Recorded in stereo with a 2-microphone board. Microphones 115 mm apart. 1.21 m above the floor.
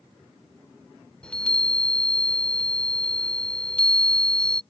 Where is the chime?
10° left (ahead or behind).